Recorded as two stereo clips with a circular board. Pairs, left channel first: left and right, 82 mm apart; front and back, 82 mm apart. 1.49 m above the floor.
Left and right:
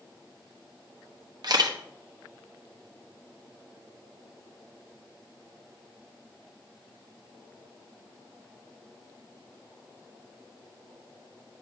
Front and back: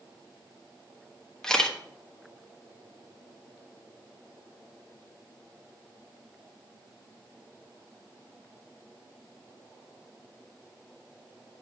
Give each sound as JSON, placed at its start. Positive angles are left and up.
{"t": 1.4, "sound": "a camera shutter", "azimuth_deg": -85, "distance_m": 1.1}